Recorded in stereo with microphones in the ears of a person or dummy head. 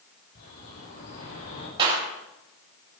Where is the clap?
25° right (ahead or behind), 4.5 m.